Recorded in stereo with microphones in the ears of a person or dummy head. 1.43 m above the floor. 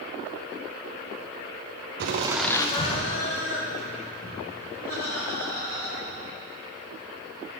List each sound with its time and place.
2.0 s laughter: 55° right (ahead or behind), 0.5 m; by 6.3 s 55° left (ahead or behind), 5 m